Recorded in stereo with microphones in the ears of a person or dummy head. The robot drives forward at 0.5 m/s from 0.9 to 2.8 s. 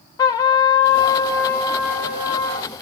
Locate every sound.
0.2 s a trumpet: 20° left (ahead or behind), 0.5 m; by 2.7 s 5° left (ahead or behind), 1.3 m